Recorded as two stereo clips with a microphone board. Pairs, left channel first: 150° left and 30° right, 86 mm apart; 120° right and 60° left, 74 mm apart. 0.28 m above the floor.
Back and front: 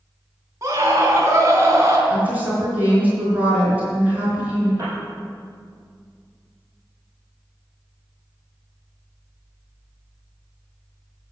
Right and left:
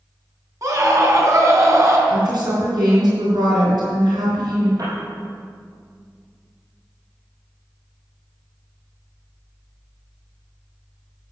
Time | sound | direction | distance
0.6 | a scream | 20° left | 3 m
2.1 | a woman speaking | 40° left | 5 m
4.8 | a piano | 25° left | 4.5 m